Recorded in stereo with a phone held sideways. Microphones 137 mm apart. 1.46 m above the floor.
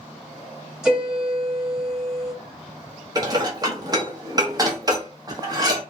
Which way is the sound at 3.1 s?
25° right (ahead or behind).